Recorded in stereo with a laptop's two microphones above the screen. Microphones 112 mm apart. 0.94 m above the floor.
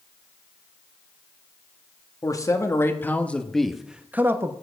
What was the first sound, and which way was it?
A man speaking, 30° left (ahead or behind).